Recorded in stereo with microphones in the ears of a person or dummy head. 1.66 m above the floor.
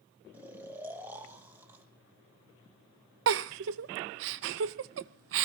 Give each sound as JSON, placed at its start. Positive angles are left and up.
{"t": 0.3, "sound": "snoring", "side_deg": -15, "distance_m": 2.0}
{"t": 3.3, "sound": "a giggle", "side_deg": -65, "distance_m": 0.7}